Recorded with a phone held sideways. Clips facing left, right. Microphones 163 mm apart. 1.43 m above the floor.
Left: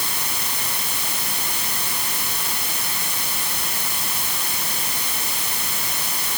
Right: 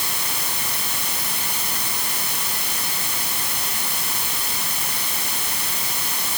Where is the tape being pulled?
No tape being pulled in this recording.